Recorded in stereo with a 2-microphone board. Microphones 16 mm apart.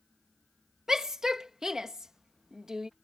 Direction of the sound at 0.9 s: 30° right (ahead or behind).